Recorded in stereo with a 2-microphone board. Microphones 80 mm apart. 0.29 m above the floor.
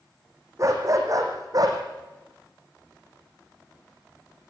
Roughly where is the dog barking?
Right.